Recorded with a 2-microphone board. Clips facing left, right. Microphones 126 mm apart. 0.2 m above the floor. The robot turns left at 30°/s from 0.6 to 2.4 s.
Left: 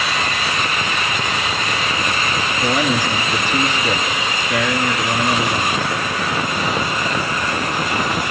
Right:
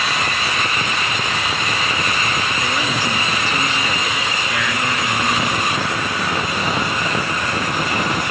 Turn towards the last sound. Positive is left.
turn(degrees=15)  # may be behind; listen again after turning